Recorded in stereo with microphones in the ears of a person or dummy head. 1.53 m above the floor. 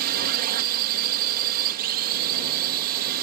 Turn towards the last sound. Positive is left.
turn(degrees=-50)  # may be behind; listen again after turning